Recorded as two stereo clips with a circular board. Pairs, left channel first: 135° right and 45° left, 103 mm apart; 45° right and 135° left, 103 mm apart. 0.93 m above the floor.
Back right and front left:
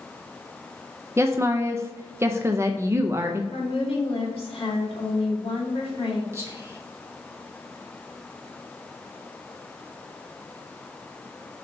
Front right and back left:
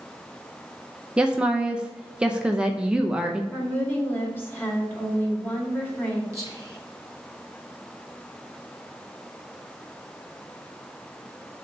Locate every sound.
1.2 s a woman speaking: 65° left, 0.5 m
3.5 s a woman speaking: 115° right, 2 m
6.3 s whispering: 95° left, 0.6 m